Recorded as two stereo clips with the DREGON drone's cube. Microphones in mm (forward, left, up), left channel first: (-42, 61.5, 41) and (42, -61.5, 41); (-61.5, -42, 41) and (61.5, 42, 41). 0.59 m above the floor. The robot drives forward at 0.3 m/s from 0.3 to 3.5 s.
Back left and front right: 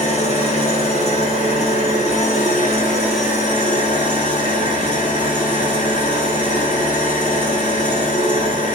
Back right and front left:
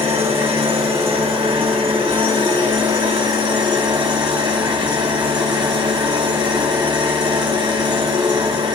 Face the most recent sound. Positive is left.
turn(degrees=95)